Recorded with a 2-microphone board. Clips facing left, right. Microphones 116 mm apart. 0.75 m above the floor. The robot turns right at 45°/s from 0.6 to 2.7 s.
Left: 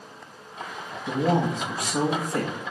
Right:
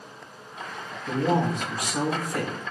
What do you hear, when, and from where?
1.1 s a man speaking: 15° left (ahead or behind), 0.6 m; by 2.5 s 30° left (ahead or behind), 0.6 m